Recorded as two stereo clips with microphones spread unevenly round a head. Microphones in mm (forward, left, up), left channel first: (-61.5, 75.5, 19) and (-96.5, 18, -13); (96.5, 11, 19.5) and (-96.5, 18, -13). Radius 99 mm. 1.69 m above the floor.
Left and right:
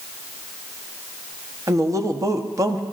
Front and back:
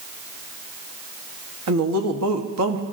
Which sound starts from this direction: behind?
A woman speaking, at 1.7 s.